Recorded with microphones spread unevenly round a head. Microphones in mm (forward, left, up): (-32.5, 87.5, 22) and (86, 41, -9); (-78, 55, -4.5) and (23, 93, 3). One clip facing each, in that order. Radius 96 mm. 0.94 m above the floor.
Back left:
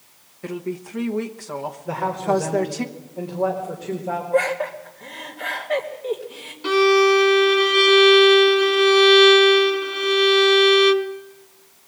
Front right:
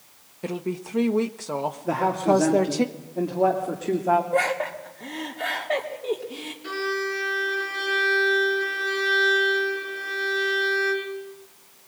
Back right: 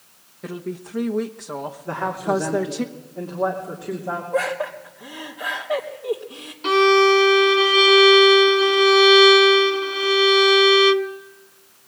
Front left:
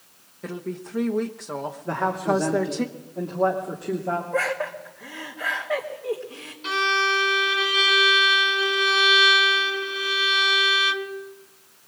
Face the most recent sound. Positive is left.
turn(degrees=175)